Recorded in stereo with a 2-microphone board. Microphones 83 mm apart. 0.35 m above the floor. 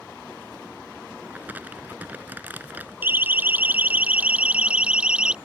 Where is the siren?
20° right (ahead or behind); by 5.3 s 10° right (ahead or behind).